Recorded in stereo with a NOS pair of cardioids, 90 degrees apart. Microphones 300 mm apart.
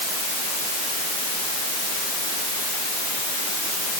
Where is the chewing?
No chewing in this recording.